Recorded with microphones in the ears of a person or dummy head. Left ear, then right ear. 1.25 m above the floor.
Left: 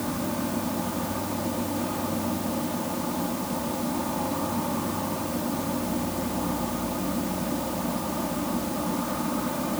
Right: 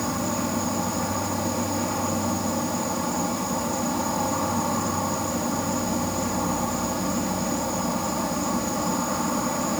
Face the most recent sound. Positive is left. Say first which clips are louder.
# right 3 dB
turn(degrees=-80)